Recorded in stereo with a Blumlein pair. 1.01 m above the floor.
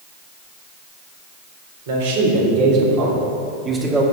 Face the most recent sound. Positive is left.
turn(degrees=-10)